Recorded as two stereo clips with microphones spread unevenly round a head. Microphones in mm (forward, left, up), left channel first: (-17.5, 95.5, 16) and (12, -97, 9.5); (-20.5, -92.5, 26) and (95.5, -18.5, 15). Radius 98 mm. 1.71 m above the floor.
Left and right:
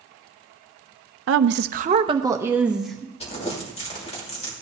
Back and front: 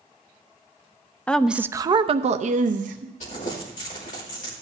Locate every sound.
1.3 s a woman speaking: 70° right, 0.6 m; by 3.1 s 10° left, 1.1 m
3.2 s crumpling: 160° left, 2.5 m